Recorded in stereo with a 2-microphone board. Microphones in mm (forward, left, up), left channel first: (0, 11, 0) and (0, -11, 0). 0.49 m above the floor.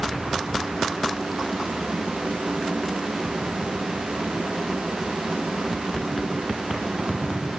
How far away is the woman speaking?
No woman speaking in this recording.